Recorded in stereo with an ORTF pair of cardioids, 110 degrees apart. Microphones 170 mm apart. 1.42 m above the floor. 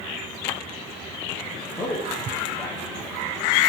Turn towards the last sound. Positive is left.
turn(degrees=20)